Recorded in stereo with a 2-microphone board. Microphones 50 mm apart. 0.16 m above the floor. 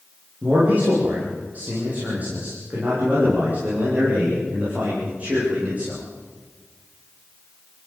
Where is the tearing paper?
No tearing paper in this recording.